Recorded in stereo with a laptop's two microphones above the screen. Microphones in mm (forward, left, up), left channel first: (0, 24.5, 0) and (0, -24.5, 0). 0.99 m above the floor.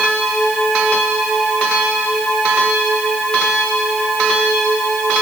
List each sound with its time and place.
Only background noise.